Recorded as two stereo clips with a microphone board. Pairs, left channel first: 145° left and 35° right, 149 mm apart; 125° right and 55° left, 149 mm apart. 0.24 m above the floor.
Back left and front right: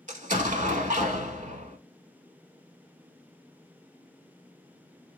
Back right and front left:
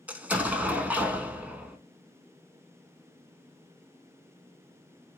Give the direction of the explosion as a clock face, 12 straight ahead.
1 o'clock.